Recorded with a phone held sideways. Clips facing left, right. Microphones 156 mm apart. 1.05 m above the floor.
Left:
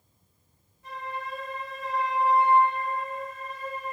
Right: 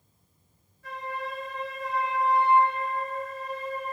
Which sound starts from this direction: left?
A flute, at 0.8 s.